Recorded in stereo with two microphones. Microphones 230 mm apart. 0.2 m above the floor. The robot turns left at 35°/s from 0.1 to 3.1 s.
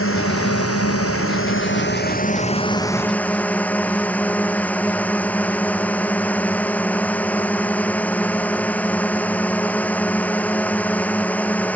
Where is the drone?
110° left; by 11.8 s 5° left.